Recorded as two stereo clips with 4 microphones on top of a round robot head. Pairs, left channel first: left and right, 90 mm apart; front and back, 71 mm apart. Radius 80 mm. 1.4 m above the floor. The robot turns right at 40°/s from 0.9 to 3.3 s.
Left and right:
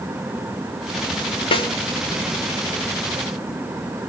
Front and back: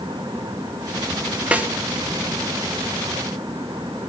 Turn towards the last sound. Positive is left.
turn(degrees=180)